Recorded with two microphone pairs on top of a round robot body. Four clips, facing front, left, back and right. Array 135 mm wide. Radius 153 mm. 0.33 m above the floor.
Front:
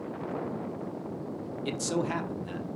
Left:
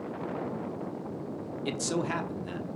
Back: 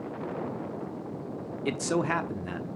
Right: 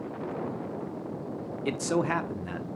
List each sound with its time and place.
1.6 s a man speaking: 155° right, 1.3 m